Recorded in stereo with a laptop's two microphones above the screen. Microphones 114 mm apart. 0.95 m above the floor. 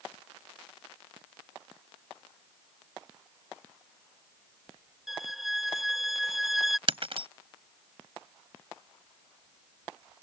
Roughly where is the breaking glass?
Right.